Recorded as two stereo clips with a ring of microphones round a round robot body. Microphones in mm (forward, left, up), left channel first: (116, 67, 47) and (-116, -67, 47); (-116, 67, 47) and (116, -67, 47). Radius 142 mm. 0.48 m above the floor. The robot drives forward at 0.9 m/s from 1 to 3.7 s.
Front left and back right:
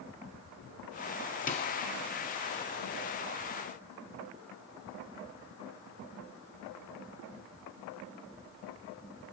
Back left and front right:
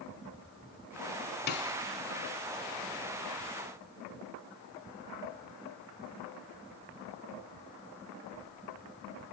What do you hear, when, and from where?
1.5 s a snare drum: 95° left, 0.8 m; by 1.7 s 110° left, 0.9 m